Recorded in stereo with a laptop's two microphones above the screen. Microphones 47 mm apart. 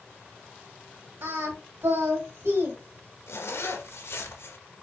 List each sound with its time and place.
1.2 s singing: 75° right (ahead or behind), 2 m
3.3 s a zipper: 70° left (ahead or behind), 1.0 m